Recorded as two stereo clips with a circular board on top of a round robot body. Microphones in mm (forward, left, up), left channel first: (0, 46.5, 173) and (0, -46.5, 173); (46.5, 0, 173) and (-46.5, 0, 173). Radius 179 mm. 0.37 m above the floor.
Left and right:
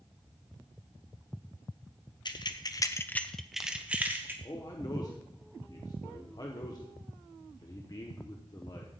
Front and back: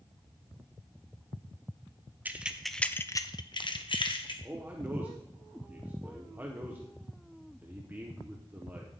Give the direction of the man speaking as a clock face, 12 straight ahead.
8 o'clock.